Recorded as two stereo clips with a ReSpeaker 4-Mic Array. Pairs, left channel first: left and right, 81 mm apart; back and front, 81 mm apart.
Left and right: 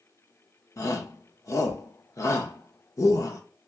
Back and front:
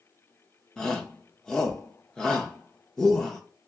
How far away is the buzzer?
No buzzer in this recording.